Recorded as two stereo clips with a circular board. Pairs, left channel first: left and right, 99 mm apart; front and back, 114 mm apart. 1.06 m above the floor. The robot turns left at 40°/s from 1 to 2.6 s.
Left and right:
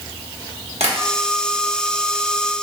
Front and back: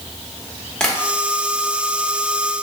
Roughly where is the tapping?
Right.